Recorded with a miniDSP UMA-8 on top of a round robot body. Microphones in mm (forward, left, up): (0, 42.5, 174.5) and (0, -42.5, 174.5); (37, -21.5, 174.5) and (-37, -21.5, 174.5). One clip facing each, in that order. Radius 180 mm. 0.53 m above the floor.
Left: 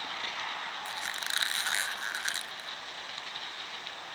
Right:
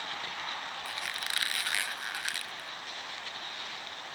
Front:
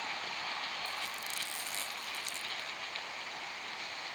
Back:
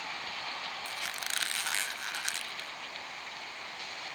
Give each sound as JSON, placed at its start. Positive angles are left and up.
{"t": 0.8, "sound": "a squeak", "azimuth_deg": 155}